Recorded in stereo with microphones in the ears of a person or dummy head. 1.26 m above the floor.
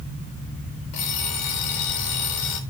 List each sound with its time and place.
0.9 s an alarm clock: 55° left (ahead or behind), 4 m